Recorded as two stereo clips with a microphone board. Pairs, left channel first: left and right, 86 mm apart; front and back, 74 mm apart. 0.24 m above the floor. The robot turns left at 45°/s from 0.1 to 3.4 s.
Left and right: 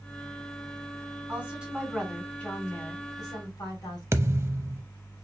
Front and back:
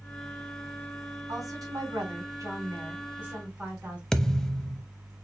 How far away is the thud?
About 0.6 m.